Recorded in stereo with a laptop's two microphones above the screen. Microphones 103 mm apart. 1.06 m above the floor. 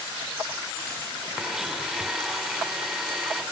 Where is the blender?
5° right (ahead or behind), 1.4 m.